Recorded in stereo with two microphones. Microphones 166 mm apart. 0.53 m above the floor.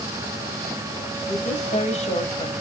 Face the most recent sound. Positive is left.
turn(degrees=40)  # may be behind; listen again after turning